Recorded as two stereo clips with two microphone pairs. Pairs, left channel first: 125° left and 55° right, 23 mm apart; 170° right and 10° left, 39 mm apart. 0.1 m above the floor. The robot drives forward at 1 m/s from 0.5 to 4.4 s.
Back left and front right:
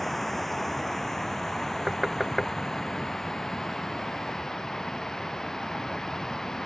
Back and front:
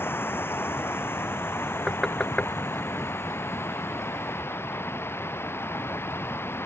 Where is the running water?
150° right; by 6.7 s 165° right.